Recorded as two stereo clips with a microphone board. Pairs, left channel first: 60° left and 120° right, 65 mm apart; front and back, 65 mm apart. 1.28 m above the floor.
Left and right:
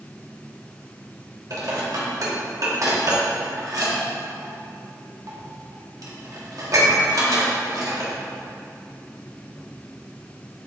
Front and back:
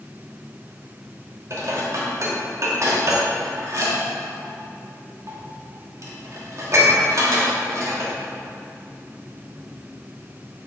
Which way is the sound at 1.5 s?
145° right.